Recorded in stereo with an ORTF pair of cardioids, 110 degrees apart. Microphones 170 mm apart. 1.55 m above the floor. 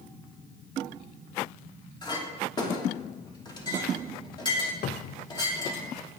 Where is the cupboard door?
50° left, 0.5 m.